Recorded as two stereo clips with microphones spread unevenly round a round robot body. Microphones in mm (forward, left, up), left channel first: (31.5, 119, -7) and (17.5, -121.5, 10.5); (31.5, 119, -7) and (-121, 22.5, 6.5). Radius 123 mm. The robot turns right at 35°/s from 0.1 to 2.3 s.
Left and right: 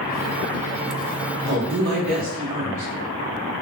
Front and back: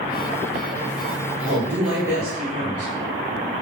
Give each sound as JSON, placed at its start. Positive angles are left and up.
{"t": 1.5, "sound": "a woman speaking", "azimuth_deg": -90, "distance_m": 1.4}